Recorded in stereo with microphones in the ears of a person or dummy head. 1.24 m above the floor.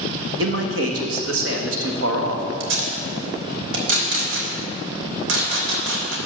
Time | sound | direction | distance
0.4 | a man speaking | 65° right (ahead or behind) | 1.3 m
2.6 | tape being pulled | 75° right (ahead or behind) | 3 m